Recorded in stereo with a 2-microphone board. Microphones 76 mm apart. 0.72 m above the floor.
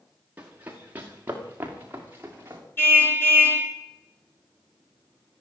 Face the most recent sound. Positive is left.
turn(degrees=30)  # may be behind; listen again after turning